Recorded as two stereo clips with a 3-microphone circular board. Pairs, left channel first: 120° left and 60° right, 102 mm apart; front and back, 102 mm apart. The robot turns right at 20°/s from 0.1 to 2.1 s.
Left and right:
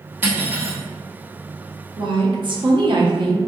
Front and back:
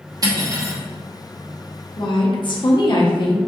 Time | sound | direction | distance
0.2 | cutlery clinking | 130° right | 0.9 m
2.0 | a woman speaking | 35° right | 0.8 m